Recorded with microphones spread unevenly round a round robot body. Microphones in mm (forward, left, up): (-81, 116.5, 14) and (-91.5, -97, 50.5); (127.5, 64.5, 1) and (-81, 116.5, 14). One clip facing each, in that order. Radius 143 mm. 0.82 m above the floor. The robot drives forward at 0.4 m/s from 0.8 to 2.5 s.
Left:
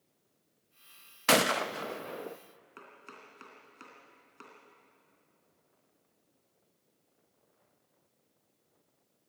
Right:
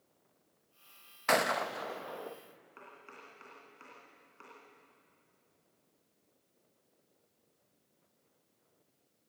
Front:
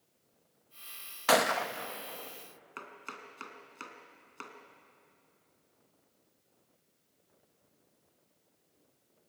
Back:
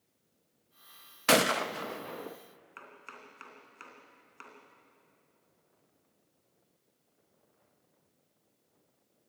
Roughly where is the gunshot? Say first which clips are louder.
Left 4 dB, back 2 dB; left.